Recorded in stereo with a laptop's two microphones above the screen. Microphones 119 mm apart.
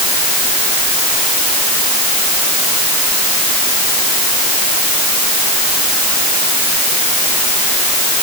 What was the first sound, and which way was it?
Only background noise.